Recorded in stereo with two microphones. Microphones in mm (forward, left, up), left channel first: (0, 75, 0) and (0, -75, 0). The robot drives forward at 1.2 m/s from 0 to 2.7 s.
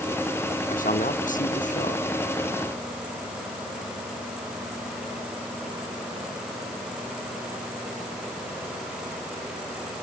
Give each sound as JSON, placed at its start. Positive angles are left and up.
{"t": 0.7, "sound": "a man speaking", "side_deg": 65}